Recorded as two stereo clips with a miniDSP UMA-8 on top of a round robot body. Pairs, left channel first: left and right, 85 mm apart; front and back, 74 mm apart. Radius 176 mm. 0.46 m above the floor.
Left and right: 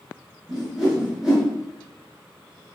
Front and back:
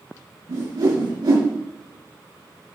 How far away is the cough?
I don't hear a cough.